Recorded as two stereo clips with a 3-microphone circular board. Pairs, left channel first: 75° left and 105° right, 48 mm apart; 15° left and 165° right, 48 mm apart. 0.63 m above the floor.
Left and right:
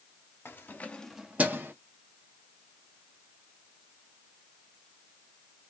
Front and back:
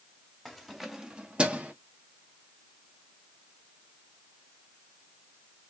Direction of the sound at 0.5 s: 100° left.